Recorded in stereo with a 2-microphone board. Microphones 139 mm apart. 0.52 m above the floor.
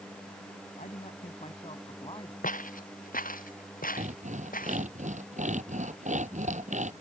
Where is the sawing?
60° right (ahead or behind).